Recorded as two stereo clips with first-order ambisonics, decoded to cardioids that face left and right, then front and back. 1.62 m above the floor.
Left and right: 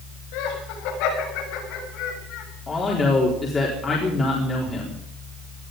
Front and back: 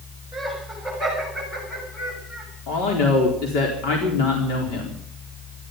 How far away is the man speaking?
About 4 m.